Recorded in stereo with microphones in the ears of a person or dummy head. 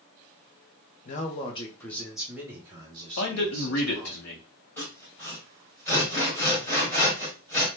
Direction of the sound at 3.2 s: 80° left.